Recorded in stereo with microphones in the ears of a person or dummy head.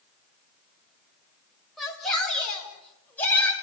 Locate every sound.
1.8 s a shout: 5° left (ahead or behind), 6.5 m; by 3.5 s 15° left (ahead or behind), 7 m